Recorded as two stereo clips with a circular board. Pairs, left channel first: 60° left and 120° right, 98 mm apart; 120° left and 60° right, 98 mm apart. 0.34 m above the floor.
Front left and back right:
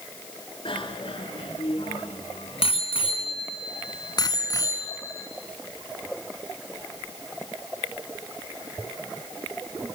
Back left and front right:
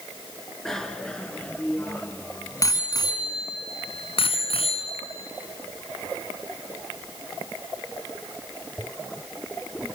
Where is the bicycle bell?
35° left, 3.5 m; by 5.3 s 120° left, 3.5 m.